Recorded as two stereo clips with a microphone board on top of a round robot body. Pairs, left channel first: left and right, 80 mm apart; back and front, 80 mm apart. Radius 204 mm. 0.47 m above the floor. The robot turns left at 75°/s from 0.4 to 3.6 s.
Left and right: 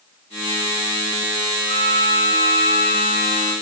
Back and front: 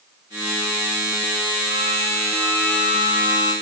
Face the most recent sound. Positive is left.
turn(degrees=165)